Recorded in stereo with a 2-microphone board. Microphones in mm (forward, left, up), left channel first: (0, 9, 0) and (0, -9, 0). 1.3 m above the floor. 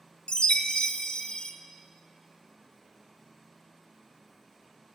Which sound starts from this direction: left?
A chime, at 0.3 s.